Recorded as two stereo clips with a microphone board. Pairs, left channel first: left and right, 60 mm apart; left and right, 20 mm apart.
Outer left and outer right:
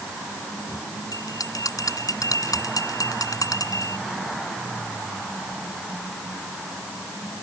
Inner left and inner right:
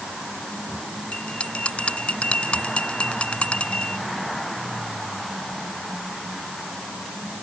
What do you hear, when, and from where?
1.1 s a bell: 75° left (ahead or behind)